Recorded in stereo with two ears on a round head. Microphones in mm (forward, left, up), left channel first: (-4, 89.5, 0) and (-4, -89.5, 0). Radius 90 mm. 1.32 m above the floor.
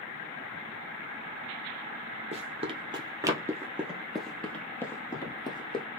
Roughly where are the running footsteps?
Right.